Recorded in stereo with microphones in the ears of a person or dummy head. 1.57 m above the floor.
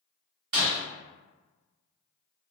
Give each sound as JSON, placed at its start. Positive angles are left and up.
{"t": 0.5, "sound": "breaking glass", "side_deg": -45, "distance_m": 1.9}